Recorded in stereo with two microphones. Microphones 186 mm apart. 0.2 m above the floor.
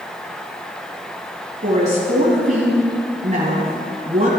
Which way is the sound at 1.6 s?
40° right (ahead or behind).